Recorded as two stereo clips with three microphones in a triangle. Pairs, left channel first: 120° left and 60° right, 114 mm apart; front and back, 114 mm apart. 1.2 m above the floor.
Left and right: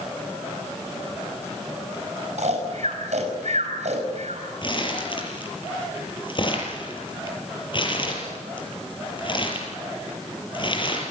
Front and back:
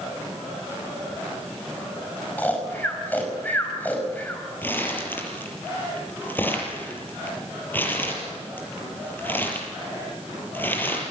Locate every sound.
2.4 s snoring: 75° right, 5.5 m
4.6 s crumpling: 75° left, 7 m